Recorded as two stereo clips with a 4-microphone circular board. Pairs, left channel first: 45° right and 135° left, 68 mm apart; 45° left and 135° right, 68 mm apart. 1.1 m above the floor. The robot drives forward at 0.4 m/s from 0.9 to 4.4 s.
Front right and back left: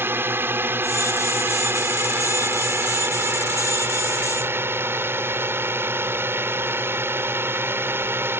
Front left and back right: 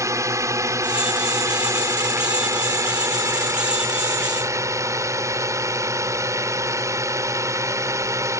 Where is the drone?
170° right.